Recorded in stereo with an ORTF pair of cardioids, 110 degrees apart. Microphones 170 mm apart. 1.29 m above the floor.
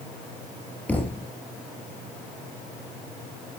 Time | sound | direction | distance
0.9 | a thud | 10° left | 3.5 m